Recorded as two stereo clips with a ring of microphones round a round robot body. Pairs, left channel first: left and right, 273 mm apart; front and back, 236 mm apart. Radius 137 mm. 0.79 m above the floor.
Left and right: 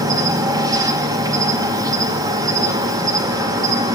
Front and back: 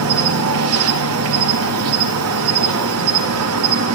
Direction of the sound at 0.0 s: 165° right.